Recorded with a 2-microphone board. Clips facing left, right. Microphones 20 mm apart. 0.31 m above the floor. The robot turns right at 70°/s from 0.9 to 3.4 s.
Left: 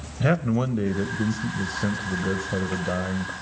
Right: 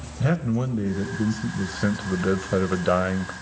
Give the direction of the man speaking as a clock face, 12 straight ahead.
7 o'clock.